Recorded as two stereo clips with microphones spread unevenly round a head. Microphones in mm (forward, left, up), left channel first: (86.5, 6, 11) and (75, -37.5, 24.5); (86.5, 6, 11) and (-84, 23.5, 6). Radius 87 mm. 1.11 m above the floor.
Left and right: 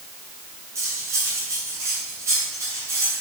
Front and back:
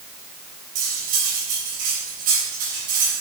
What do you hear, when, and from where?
0.8 s cutlery clinking: 140° right, 3.5 m